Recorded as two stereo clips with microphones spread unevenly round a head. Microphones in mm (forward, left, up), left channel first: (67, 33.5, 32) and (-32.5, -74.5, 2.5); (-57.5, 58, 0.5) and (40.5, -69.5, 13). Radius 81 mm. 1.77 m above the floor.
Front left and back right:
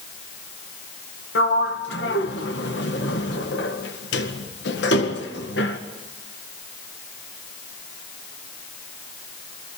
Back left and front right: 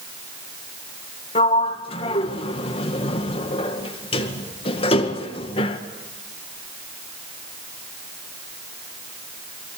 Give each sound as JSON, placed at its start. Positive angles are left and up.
{"t": 1.4, "sound": "a sliding door", "azimuth_deg": 70, "distance_m": 1.8}